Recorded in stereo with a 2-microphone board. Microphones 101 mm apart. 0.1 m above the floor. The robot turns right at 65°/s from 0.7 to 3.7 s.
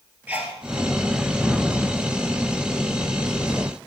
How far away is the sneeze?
About 1.8 m.